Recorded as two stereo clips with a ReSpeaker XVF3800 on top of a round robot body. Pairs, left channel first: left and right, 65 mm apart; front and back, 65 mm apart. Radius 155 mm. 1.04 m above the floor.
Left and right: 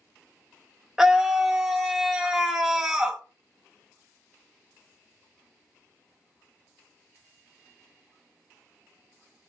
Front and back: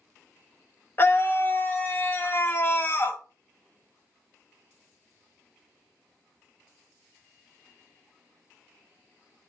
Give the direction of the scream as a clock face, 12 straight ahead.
12 o'clock.